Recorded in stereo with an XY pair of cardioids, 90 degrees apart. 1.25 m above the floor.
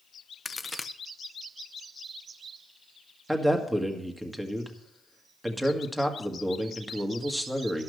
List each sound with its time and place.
0.5 s a crack: 20° left, 0.6 m
3.3 s a man speaking: 10° right, 1.7 m